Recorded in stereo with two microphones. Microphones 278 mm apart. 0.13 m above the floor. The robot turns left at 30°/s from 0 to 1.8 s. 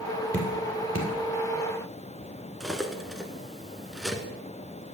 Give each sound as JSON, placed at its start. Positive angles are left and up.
{"t": 0.3, "sound": "dripping", "side_deg": -35, "distance_m": 2.5}
{"t": 2.6, "sound": "cutlery clinking", "side_deg": 0, "distance_m": 0.9}